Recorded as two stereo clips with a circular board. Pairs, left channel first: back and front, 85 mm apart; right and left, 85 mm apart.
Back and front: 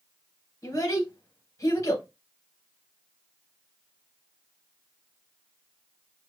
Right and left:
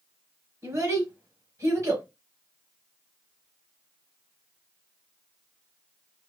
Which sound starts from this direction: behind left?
A child speaking, at 0.6 s.